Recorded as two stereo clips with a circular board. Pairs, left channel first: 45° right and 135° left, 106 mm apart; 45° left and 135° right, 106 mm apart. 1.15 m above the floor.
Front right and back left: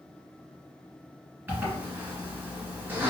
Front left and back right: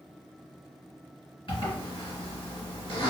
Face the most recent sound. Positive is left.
turn(degrees=70)